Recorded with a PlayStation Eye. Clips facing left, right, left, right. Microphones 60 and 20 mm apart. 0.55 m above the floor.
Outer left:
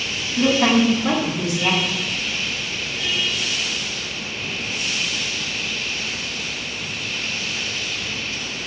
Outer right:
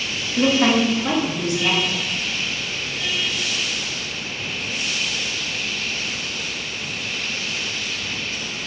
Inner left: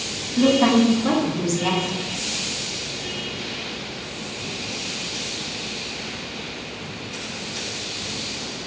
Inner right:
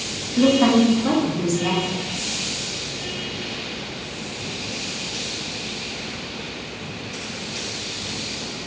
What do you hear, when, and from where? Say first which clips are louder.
0.4 s a woman speaking: even, inner right 1 dB; 20° right (ahead or behind), 0.6 m; by 2.0 s 15° left (ahead or behind), 1.0 m